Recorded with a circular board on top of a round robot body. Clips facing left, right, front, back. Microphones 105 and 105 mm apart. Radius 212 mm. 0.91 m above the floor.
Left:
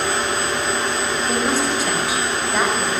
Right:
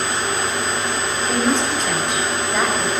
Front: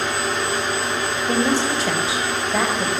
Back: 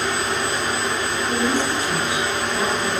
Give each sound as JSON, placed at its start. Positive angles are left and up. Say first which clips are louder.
{"t": 1.3, "sound": "a woman speaking", "louder": "right 2 dB, front 3 dB", "azimuth_deg": 5, "distance_m": 6.0}